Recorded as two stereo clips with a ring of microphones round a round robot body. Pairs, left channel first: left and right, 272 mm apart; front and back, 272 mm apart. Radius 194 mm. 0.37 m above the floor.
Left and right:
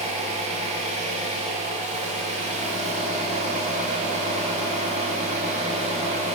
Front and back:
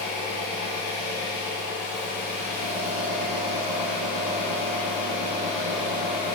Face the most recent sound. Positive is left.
turn(degrees=-25)